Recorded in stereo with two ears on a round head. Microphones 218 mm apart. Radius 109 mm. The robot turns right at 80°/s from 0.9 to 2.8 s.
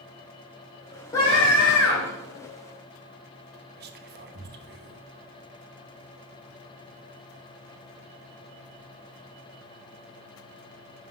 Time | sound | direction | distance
1.1 | a scream | 15° left | 2.5 m
3.8 | whispering | 40° right (ahead or behind) | 1.1 m